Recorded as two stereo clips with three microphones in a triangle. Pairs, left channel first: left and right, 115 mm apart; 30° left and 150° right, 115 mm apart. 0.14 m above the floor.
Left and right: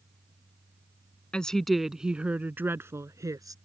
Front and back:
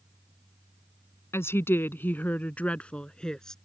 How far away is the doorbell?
I don't hear a doorbell.